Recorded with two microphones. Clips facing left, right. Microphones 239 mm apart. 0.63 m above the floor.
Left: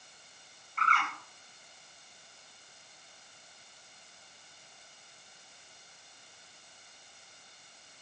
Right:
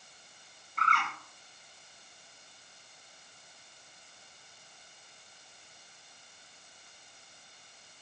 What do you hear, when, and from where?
0.8 s a bird: 45° right (ahead or behind), 1.5 m